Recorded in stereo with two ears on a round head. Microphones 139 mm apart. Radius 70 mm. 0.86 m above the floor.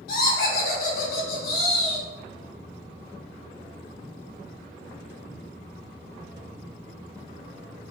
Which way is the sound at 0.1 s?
70° left (ahead or behind).